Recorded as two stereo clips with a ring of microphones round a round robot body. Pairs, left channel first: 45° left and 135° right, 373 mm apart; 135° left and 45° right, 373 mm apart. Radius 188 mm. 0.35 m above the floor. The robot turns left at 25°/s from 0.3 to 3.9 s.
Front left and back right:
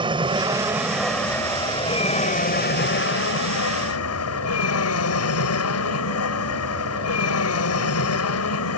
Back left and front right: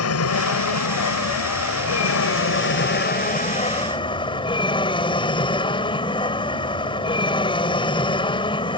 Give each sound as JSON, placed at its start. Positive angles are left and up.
{"t": 0.0, "sound": "an aircraft", "azimuth_deg": 155}